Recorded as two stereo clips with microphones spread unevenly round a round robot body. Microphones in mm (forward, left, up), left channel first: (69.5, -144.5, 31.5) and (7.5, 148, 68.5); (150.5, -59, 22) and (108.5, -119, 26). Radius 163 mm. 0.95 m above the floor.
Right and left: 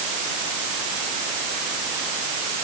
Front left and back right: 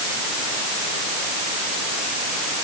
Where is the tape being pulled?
I don't hear tape being pulled.